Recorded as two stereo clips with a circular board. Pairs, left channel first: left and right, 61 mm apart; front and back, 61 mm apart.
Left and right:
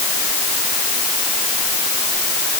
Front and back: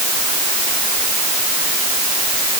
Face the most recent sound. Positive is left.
No sound to turn to.